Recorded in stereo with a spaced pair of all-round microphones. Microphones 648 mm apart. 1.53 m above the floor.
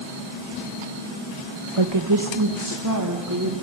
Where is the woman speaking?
45° right (ahead or behind), 1.4 m; by 3.5 s 25° right (ahead or behind), 4 m.